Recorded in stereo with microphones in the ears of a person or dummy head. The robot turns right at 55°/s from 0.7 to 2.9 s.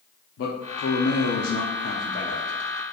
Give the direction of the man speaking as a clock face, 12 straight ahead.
10 o'clock.